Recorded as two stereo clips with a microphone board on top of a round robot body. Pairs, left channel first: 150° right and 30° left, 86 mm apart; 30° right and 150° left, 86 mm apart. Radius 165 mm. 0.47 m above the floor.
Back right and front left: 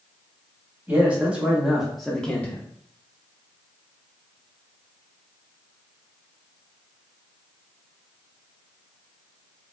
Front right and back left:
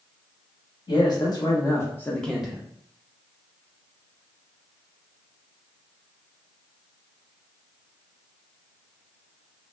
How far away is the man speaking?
About 1.6 m.